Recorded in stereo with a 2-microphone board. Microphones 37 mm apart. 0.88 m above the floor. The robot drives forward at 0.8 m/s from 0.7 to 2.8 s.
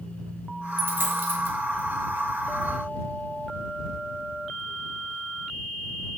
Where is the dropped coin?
75° right (ahead or behind), 2 m; by 1.6 s 65° right (ahead or behind), 2 m.